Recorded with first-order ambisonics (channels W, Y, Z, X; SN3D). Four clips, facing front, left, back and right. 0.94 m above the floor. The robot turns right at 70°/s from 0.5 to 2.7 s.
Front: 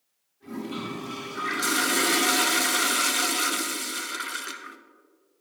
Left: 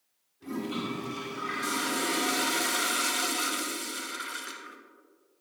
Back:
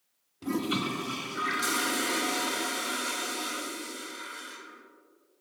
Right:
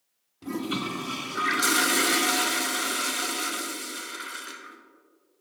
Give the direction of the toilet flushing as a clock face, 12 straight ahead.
5 o'clock.